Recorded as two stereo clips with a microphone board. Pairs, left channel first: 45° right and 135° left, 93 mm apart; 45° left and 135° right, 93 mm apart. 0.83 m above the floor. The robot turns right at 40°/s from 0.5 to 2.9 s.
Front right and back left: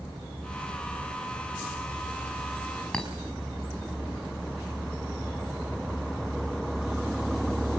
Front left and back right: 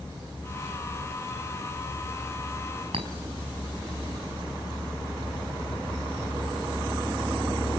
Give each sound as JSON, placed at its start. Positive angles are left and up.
{"t": 2.9, "sound": "a clink", "azimuth_deg": -125, "distance_m": 4.5}